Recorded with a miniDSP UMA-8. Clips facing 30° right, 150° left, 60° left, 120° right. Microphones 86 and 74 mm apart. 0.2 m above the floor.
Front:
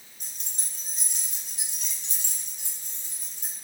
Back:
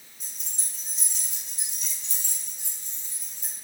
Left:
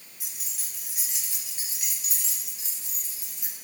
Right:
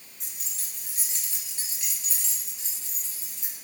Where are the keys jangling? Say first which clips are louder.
Even, even; 20° right, 2 m; by 3.5 s 10° right, 4 m.